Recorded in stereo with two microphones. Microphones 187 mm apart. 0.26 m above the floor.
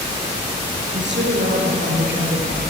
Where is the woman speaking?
70° right (ahead or behind), 5 m.